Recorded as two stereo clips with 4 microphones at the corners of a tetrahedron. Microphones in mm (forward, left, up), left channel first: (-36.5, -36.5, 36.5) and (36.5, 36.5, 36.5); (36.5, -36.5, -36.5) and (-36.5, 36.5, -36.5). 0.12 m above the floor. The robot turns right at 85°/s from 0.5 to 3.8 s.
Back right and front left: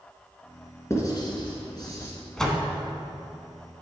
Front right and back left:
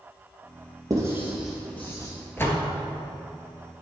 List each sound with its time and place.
0.9 s writing: 175° left, 1.9 m; by 2.1 s 85° right, 1.9 m
2.4 s a door slam: 65° right, 0.9 m; by 2.7 s 35° right, 0.9 m